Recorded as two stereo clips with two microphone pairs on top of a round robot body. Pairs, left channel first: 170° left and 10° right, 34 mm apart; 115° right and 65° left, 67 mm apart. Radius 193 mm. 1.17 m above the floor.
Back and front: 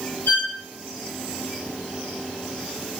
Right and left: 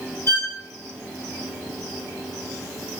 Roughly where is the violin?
Behind.